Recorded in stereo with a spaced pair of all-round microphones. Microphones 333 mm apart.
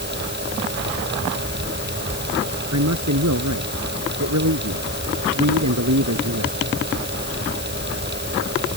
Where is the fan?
30° right (ahead or behind).